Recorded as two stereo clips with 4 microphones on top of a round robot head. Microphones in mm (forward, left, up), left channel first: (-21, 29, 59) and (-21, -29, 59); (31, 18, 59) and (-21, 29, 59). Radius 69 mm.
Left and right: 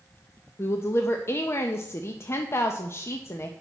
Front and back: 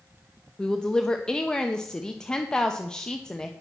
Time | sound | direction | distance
0.6 | a woman speaking | 60° left | 0.6 m